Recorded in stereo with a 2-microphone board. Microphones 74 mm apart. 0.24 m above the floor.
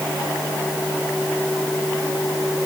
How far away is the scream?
I don't hear a scream.